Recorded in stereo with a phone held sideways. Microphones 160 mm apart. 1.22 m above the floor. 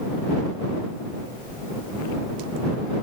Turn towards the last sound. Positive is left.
No sound to turn to.